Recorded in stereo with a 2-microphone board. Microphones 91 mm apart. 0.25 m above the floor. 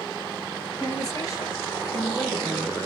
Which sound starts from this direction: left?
A woman speaking, at 0.8 s.